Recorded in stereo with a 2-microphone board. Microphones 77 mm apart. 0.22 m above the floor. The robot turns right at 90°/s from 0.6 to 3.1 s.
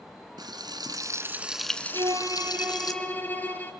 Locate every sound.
0.4 s frying: 95° right, 2 m; by 2.9 s 115° left, 2 m
1.9 s a violin: 80° right, 3 m; by 3.7 s 25° left, 3 m